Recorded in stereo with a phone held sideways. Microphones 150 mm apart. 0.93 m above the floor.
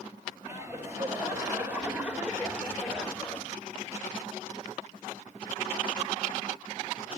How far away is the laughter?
About 5 m.